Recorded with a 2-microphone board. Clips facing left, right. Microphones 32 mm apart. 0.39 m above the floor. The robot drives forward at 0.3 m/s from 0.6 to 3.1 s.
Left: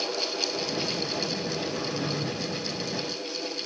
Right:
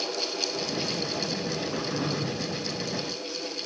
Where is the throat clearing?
30° right (ahead or behind), 8.5 m.